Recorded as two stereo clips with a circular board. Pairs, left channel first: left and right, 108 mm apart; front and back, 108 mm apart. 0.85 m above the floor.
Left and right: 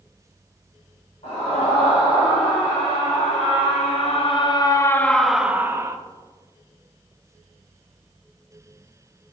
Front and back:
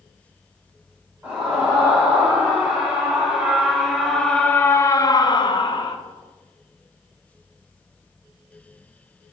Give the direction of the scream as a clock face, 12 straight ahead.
8 o'clock.